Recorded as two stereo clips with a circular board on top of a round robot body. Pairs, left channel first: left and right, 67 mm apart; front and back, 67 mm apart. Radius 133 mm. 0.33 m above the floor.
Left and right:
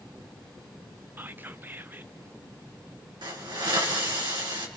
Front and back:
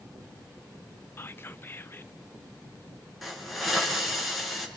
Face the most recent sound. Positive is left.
turn(degrees=-90)